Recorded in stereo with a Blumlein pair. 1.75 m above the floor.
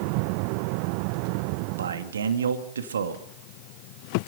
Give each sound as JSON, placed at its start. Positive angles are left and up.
{"t": 1.8, "sound": "a man speaking", "azimuth_deg": -65, "distance_m": 2.5}